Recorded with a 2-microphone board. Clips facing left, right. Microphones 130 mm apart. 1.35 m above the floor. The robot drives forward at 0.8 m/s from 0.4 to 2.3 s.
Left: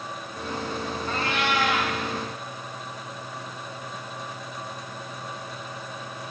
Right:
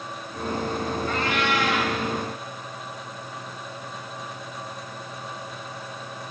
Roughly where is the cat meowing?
Left.